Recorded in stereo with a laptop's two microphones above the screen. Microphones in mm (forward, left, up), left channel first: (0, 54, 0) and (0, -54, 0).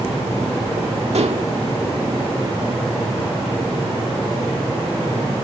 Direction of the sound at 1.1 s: 80° right.